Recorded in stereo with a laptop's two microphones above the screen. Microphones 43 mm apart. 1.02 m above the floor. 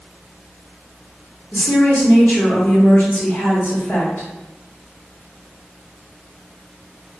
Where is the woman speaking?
45° left (ahead or behind), 0.9 m.